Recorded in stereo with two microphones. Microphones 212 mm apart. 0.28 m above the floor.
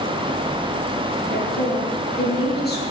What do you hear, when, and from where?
1.3 s a woman speaking: 50° left (ahead or behind), 3.5 m